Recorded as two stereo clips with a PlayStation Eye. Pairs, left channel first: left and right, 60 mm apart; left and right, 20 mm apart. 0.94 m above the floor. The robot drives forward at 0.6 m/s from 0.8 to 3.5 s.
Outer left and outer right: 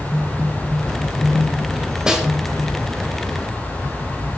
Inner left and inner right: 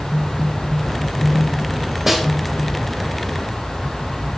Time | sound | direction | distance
2.1 | a snare drum | 10° right (ahead or behind) | 4.5 m